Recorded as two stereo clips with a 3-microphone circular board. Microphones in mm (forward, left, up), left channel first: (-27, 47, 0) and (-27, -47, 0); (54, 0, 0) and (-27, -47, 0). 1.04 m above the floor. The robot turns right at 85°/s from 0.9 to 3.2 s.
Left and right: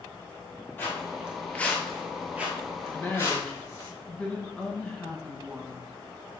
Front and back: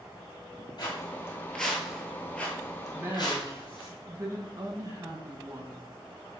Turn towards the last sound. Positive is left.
turn(degrees=170)